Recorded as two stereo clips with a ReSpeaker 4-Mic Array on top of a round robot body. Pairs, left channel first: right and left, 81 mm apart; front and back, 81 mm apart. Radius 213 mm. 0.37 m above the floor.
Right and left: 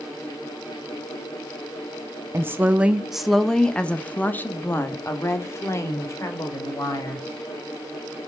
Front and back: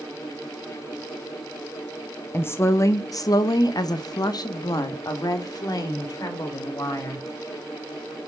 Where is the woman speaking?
50° left, 0.9 m; by 7.3 s 40° right, 2.5 m.